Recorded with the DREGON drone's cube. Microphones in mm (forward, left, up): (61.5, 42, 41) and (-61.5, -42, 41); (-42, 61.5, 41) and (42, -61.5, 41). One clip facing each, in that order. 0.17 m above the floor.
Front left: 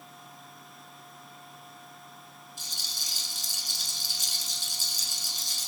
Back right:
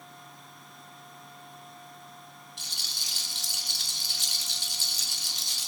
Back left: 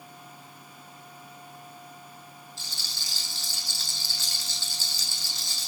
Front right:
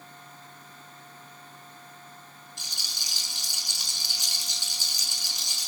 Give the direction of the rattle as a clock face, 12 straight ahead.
4 o'clock.